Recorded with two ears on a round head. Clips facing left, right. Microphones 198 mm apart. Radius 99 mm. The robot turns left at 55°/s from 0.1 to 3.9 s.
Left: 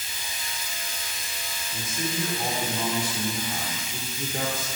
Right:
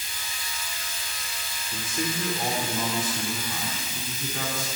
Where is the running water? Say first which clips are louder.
Left 1 dB; 175° left, 2.5 m; by 4.8 s 35° right, 2.5 m.